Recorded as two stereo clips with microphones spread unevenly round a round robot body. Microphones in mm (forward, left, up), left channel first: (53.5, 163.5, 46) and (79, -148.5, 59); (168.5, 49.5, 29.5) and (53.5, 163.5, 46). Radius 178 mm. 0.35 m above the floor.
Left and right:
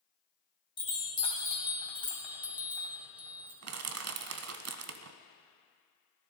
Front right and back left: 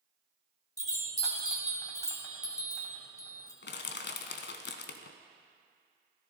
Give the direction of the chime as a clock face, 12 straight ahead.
11 o'clock.